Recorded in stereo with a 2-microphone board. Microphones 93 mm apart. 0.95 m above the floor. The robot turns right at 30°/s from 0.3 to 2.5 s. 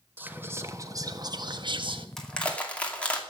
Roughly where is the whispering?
Behind.